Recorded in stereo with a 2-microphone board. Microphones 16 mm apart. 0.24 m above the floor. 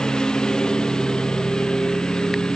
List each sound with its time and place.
0.0 s a lawn mower: 45° left (ahead or behind)